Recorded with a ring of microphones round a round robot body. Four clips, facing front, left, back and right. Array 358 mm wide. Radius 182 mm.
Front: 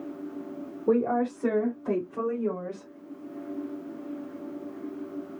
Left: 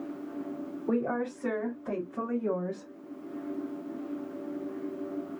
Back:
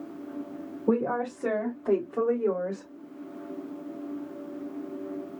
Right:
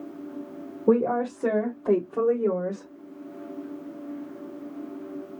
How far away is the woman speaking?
About 3 m.